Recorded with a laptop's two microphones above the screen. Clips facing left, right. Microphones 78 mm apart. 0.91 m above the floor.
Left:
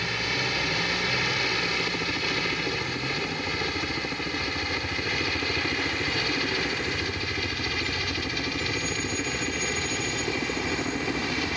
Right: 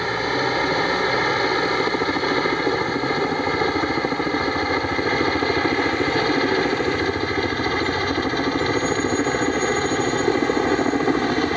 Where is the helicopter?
45° right (ahead or behind); by 11.6 s 50° right (ahead or behind).